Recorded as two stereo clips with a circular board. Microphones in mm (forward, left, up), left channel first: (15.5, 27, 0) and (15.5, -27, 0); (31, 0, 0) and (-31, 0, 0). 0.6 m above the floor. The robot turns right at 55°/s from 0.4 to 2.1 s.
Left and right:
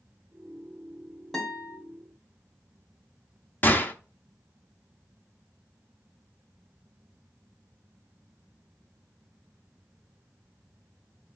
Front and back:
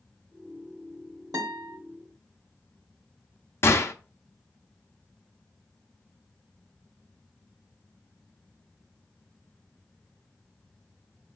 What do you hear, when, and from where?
1.3 s a guitar: 175° left, 1.1 m; by 1.8 s 160° right, 1.1 m
3.6 s a gunshot: 40° left, 0.5 m